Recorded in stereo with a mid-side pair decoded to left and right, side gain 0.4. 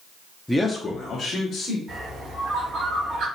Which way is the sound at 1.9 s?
70° right.